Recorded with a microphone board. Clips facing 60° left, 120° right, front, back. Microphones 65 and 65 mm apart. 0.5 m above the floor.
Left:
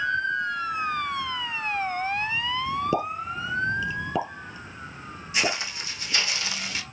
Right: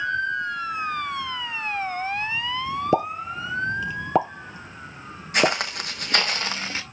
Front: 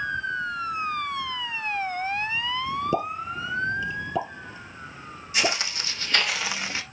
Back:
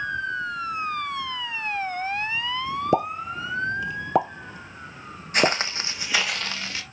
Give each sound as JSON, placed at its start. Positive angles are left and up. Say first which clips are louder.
{"t": 2.9, "sound": "a pop", "louder": "right 4 dB, back 3 dB", "azimuth_deg": -155, "distance_m": 1.0}
{"t": 5.3, "sound": "footsteps", "louder": "right 6 dB, back 4 dB", "azimuth_deg": -145, "distance_m": 1.3}